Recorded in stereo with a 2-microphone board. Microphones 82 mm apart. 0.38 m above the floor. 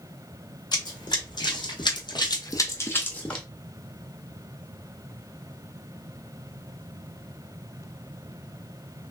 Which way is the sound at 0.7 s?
60° left (ahead or behind).